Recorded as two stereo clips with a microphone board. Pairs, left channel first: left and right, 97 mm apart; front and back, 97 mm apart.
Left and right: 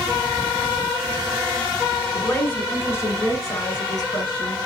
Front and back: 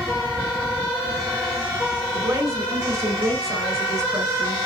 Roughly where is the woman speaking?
Behind left.